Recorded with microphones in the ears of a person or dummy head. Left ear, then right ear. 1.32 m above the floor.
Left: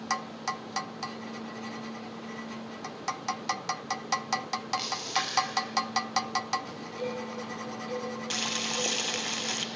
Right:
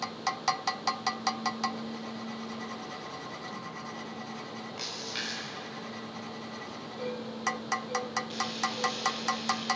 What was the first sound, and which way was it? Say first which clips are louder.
A splash: left 2 dB; 15° left (ahead or behind).